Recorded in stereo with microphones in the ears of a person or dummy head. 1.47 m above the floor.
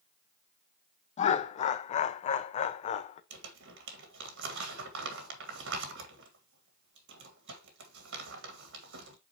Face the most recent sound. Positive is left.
turn(degrees=-65)  # may be behind; listen again after turning